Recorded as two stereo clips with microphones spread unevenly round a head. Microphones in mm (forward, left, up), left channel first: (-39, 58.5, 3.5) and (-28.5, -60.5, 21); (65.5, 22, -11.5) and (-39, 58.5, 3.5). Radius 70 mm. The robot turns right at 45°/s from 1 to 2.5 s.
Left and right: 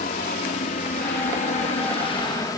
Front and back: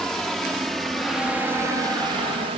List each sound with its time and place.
0.0 s a helicopter: 65° left; by 2.6 s 145° left